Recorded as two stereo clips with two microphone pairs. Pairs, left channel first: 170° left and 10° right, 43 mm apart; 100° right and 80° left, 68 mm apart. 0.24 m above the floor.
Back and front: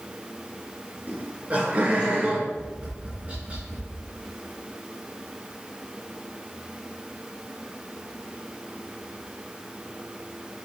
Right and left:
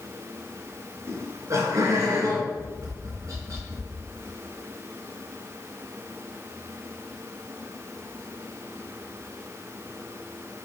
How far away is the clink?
No clink in this recording.